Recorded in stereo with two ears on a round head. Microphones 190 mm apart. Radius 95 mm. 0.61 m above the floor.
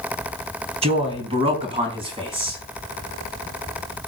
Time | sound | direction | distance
0.8 | a man speaking | 25° right (ahead or behind) | 4 m